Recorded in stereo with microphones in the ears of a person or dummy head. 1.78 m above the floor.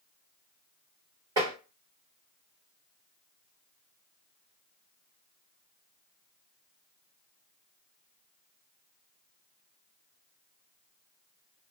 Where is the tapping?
15° right (ahead or behind), 1.4 m.